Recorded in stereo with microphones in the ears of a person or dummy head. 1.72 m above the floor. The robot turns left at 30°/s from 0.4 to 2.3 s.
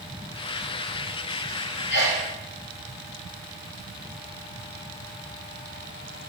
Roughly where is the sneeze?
Left.